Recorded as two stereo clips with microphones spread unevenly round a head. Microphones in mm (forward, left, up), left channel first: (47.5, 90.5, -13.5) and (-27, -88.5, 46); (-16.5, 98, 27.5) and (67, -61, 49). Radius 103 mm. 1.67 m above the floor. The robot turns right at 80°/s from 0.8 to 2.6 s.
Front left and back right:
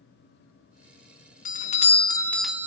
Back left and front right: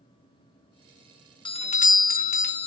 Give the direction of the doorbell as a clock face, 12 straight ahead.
10 o'clock.